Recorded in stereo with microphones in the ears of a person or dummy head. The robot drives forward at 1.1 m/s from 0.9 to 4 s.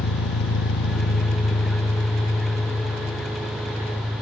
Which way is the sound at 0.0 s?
50° left (ahead or behind).